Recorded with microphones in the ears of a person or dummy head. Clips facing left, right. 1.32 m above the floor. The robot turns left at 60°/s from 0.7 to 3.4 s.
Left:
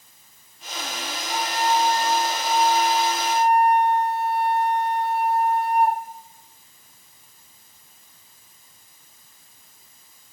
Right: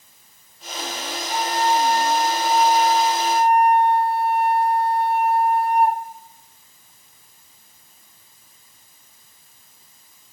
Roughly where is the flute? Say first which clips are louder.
Right 2 dB; ahead.